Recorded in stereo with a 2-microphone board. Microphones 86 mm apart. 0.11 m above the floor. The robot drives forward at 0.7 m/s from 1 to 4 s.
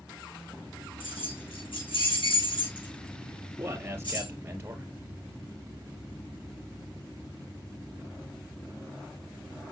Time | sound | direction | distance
1.0 | keys jangling | 80° left | 5 m
3.6 | a man speaking | 25° right (ahead or behind) | 2 m